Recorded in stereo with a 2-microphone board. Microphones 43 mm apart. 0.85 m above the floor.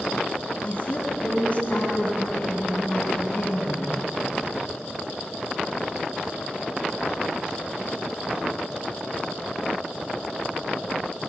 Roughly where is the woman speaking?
Left.